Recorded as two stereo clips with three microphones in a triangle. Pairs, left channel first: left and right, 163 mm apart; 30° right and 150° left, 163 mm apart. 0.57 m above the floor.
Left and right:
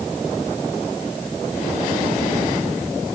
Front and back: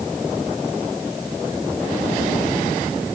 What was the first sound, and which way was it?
Only background noise.